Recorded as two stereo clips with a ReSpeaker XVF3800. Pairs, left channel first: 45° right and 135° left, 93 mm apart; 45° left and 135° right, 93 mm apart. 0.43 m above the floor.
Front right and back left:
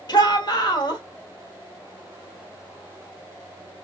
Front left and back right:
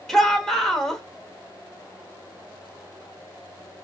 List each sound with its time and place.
0.1 s a shout: 40° right, 1.2 m